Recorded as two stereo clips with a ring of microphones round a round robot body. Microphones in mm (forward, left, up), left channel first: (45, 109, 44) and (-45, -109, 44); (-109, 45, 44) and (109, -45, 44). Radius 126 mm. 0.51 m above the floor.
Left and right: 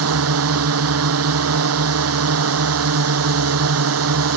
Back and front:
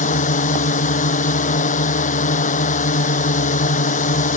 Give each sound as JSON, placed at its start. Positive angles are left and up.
{"t": 0.0, "sound": "a drone", "azimuth_deg": -140}